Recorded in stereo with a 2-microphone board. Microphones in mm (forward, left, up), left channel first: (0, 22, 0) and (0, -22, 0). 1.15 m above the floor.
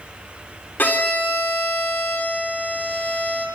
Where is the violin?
45° left (ahead or behind), 3.5 m.